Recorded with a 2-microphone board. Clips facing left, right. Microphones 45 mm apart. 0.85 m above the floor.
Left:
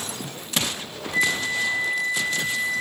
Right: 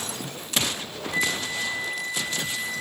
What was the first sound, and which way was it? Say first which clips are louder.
A flute: left 4 dB; 20° right (ahead or behind).